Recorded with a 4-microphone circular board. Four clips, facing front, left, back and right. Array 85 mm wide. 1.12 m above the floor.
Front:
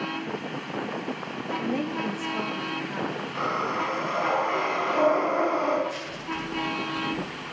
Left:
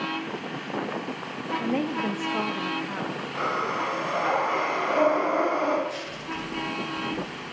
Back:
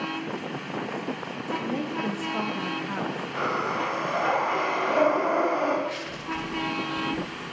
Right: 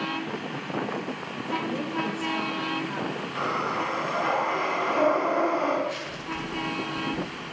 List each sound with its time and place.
1.6 s a woman speaking: 80° left, 1.8 m; by 3.2 s 165° left, 1.9 m
3.3 s breathing: 155° left, 7 m
5.9 s crushing: 160° right, 5.5 m